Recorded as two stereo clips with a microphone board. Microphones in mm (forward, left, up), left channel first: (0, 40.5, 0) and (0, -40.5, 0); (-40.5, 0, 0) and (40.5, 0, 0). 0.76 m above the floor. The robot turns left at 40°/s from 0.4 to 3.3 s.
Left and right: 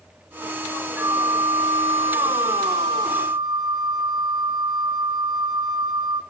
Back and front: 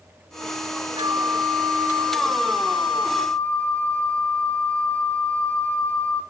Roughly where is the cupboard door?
No cupboard door in this recording.